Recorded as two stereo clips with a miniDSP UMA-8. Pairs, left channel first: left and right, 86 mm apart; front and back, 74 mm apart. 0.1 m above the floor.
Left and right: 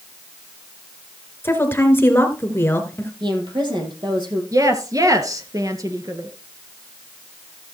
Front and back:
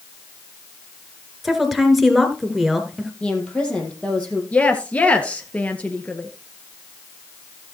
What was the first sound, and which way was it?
A woman speaking, 95° left.